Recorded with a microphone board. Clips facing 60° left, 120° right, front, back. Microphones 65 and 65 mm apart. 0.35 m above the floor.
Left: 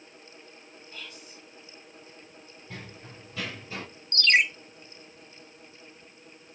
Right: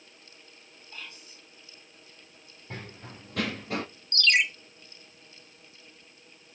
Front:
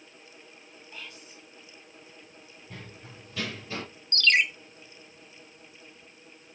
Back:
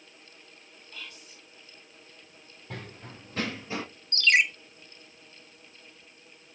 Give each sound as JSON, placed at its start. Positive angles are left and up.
{"t": 0.9, "sound": "whispering", "azimuth_deg": -65, "distance_m": 2.5}
{"t": 2.7, "sound": "running footsteps", "azimuth_deg": -165, "distance_m": 0.8}
{"t": 4.1, "sound": "a ringtone", "azimuth_deg": 105, "distance_m": 0.7}